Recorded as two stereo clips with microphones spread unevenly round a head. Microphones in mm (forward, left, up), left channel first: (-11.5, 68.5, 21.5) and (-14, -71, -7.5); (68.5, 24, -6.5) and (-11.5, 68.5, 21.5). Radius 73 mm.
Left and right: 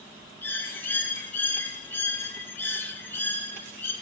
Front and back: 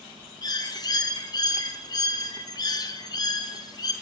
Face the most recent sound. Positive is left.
turn(degrees=10)